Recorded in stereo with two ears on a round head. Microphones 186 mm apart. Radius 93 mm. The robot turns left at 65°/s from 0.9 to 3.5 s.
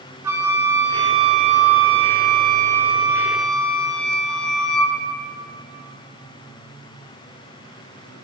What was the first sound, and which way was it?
A flute, 15° right.